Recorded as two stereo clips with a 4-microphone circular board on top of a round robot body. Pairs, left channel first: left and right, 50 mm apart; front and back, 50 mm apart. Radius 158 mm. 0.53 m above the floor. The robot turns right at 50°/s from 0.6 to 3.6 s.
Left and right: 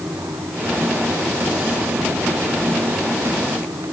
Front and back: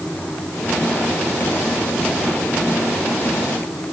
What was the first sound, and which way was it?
Only background noise.